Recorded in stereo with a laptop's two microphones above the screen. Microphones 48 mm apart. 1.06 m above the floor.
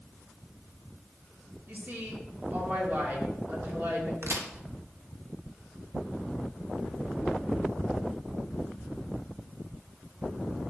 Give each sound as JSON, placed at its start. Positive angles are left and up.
{"t": 1.7, "sound": "a woman speaking", "side_deg": -40, "distance_m": 3.0}
{"t": 4.2, "sound": "a crack", "side_deg": -70, "distance_m": 1.3}